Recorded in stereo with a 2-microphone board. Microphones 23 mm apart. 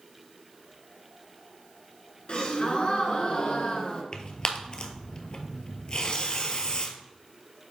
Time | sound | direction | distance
2.3 | a gasp | 45° left (ahead or behind) | 1.4 m
4.1 | tearing paper | 35° left (ahead or behind) | 0.9 m